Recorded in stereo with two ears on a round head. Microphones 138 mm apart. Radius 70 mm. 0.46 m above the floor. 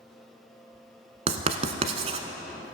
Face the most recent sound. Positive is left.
turn(degrees=-45)  # may be behind; listen again after turning